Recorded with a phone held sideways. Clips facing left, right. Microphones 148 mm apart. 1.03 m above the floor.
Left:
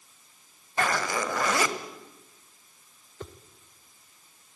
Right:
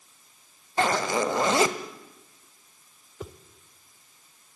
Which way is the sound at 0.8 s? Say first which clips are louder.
Right 4 dB; 25° right (ahead or behind).